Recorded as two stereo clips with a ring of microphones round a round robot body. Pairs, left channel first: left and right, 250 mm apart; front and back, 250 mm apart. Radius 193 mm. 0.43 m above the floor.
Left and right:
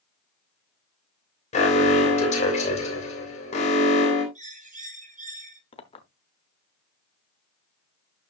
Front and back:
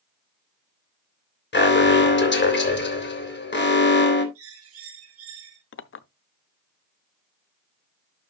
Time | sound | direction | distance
1.5 | an alarm | 30° left | 3 m
4.3 | a bird | 145° right | 3 m
5.7 | a clink | 25° left | 0.8 m